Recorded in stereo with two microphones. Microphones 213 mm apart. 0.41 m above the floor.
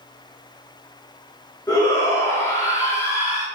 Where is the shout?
15° left (ahead or behind), 1.1 m.